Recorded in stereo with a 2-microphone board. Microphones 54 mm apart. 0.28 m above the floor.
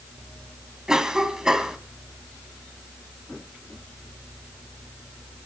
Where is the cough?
10° right (ahead or behind), 1.9 m.